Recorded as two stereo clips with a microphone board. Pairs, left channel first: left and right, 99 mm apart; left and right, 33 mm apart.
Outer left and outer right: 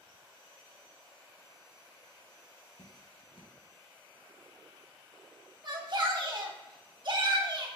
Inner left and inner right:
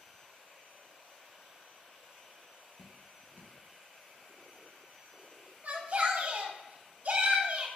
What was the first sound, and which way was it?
Dripping, 75° left (ahead or behind).